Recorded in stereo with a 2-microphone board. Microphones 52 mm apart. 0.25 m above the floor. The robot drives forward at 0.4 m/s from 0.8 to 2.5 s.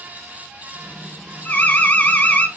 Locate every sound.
1.4 s an alarm: 35° left (ahead or behind), 1.9 m